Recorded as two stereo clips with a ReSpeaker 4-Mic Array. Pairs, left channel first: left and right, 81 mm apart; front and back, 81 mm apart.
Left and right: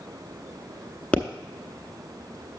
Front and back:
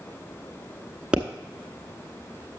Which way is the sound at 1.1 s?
130° left.